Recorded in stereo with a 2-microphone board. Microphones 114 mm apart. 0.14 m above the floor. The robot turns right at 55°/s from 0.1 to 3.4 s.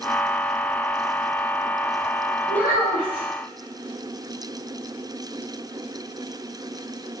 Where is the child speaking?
65° right, 0.9 m; by 3.2 s 25° right, 0.9 m.